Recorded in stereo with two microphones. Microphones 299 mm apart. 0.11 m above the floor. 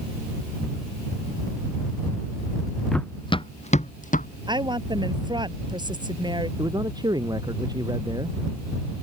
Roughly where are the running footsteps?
Centre.